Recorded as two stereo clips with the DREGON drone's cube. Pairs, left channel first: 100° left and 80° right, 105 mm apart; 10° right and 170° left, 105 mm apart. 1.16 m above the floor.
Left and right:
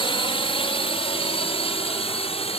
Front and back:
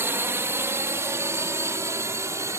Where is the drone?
105° left; by 2.6 s 110° left.